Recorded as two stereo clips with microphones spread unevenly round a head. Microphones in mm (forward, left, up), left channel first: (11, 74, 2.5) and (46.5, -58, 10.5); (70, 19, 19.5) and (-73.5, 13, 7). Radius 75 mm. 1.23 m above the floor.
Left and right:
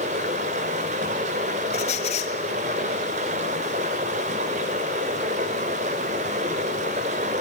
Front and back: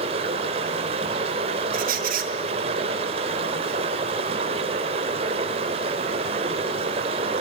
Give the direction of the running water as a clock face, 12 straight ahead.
4 o'clock.